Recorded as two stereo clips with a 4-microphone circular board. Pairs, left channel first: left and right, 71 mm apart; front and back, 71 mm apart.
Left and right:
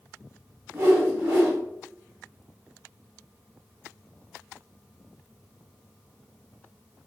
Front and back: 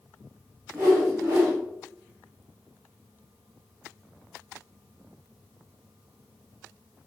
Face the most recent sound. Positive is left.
turn(degrees=-125)